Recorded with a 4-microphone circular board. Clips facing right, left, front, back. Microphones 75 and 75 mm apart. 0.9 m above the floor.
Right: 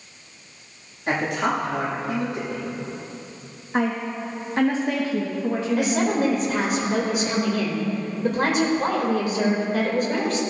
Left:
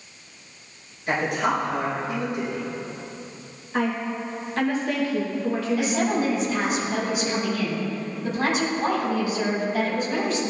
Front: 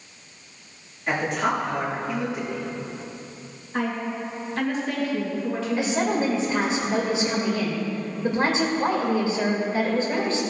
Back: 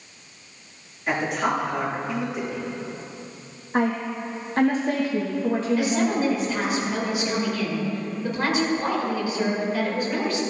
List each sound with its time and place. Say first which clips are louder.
1.1 s a man speaking: even, even; 95° right, 2 m
3.7 s a woman speaking: right 1 dB, back 3 dB; 150° right, 1.2 m
5.8 s a woman speaking: right 4 dB, back 1 dB; 60° right, 2.5 m